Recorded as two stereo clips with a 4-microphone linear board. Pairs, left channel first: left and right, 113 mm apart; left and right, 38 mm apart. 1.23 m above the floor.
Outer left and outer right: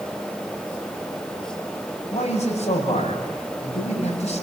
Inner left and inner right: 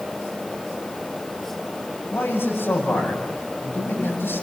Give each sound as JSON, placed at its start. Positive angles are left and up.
{"t": 2.1, "sound": "a man speaking", "side_deg": 85, "distance_m": 8.0}